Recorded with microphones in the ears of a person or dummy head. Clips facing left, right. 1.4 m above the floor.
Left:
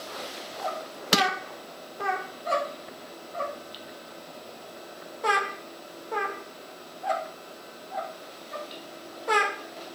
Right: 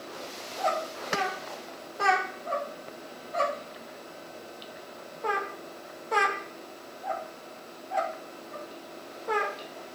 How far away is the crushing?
About 0.9 m.